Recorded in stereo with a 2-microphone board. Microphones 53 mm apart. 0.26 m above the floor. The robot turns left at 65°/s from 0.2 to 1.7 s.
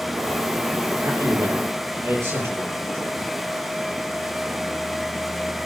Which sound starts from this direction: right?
A man speaking, at 1.0 s.